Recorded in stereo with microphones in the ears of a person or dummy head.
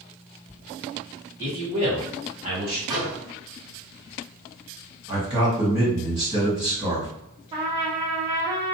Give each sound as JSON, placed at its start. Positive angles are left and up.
{"t": 1.4, "sound": "a man speaking", "side_deg": -20, "distance_m": 1.3}
{"t": 2.9, "sound": "a microwave", "side_deg": -25, "distance_m": 1.2}
{"t": 5.1, "sound": "a man speaking", "side_deg": -25, "distance_m": 1.6}
{"t": 7.5, "sound": "a trumpet", "side_deg": -30, "distance_m": 0.5}